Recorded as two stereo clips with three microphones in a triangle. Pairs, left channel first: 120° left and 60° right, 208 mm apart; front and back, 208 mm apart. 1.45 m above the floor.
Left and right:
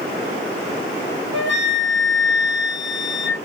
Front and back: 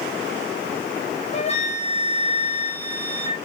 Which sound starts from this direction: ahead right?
A flute, at 1.3 s.